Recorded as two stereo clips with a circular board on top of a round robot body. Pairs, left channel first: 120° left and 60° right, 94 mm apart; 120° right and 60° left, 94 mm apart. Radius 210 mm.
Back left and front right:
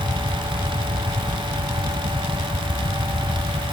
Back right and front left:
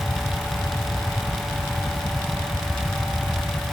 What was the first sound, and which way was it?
Only background noise.